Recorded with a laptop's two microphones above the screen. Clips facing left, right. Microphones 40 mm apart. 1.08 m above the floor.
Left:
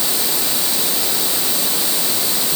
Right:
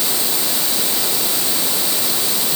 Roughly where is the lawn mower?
I don't hear a lawn mower.